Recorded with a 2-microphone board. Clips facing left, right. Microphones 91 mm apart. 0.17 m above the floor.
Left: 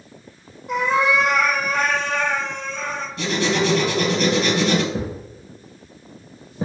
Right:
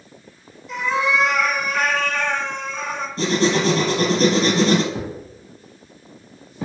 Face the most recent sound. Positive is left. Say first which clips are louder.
# left 2 dB
turn(degrees=35)  # may be behind; listen again after turning